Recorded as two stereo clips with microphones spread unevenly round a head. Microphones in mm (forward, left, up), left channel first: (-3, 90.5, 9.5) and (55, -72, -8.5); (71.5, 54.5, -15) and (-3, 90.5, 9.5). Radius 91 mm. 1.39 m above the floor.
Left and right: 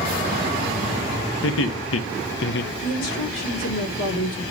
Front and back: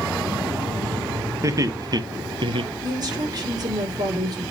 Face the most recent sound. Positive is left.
turn(degrees=120)